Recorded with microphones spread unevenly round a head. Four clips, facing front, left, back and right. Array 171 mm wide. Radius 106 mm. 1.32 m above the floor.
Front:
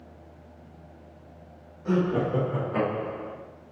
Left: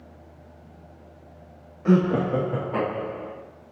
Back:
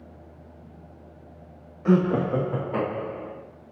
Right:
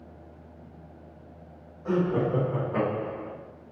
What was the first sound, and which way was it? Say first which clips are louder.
Laughter: left 5 dB, back 4 dB; 115° left.